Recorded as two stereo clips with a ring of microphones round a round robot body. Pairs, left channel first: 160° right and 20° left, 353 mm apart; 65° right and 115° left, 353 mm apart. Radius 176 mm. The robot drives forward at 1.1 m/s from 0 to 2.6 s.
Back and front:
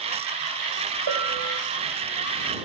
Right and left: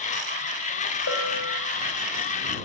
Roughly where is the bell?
Ahead.